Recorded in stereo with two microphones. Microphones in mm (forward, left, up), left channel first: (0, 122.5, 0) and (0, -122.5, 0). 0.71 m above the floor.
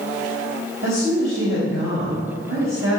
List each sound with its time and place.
0.8 s a woman speaking: 60° right (ahead or behind), 4 m